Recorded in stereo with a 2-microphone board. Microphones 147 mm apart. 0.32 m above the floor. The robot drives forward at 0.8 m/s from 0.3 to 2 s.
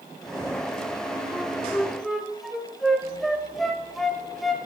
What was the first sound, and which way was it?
A flute, centre (ahead or behind).